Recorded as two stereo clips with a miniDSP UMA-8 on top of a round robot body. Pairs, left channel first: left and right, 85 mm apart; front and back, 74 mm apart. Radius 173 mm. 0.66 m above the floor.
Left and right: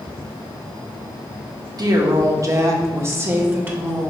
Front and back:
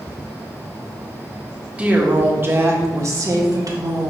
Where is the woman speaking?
110° right, 1.7 m; by 4.1 s 160° right, 2 m.